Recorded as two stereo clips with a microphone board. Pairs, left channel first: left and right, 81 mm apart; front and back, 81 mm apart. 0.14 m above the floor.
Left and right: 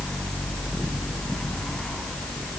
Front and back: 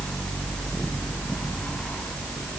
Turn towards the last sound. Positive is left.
No sound to turn to.